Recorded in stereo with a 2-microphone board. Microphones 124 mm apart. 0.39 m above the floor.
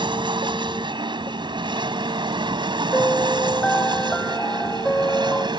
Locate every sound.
0.0 s an aircraft: 40° right (ahead or behind); by 5.6 s 35° right (ahead or behind)
2.9 s a piano: 10° left (ahead or behind)